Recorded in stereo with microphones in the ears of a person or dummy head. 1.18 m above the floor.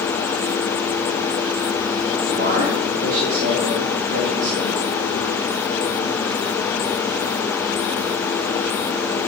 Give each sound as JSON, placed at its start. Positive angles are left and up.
{"t": 2.3, "sound": "a man speaking", "side_deg": -55, "distance_m": 6.5}